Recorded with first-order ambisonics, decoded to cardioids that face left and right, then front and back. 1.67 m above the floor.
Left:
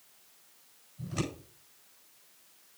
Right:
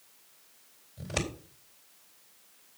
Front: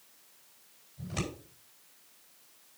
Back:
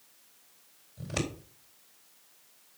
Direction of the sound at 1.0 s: 130° right.